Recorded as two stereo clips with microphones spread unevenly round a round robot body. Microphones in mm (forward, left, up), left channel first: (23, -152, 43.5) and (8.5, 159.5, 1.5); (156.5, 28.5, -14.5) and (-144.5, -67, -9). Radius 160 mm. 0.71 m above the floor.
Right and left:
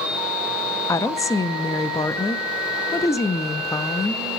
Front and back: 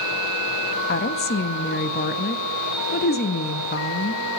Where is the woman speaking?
Straight ahead, 0.6 m.